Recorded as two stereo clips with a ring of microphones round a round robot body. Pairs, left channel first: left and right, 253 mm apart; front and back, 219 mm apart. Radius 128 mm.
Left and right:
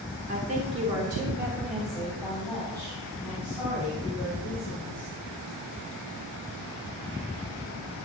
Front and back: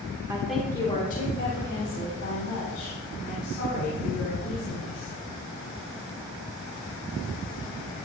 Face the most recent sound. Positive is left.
turn(degrees=15)